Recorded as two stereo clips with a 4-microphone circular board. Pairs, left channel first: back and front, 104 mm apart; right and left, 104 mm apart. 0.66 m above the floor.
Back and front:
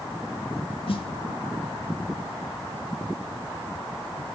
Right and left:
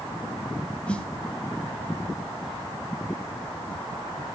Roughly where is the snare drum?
Behind.